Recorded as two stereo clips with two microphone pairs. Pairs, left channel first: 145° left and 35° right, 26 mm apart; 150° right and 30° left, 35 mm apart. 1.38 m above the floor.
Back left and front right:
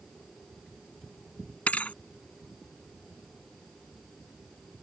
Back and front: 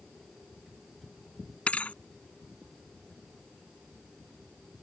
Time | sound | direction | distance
1.7 | a thud | 160° left | ?